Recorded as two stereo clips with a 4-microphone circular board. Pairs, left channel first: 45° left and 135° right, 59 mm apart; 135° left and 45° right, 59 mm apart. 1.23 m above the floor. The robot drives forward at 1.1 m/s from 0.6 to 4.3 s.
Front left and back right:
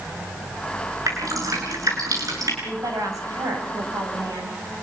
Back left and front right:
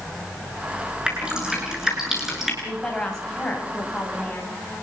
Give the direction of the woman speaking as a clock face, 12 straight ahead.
5 o'clock.